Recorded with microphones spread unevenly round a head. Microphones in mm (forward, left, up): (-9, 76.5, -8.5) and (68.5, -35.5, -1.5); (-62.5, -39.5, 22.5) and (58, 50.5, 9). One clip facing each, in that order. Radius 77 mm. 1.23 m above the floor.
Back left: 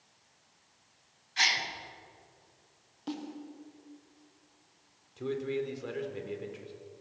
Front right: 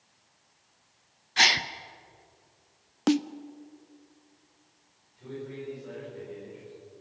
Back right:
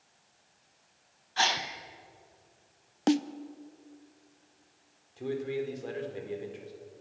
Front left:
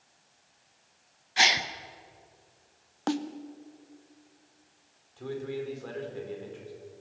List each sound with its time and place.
1.4 s a gasp: 35° right, 1.0 m
3.1 s a snare drum: 75° right, 0.6 m
5.2 s a man speaking: 150° left, 4 m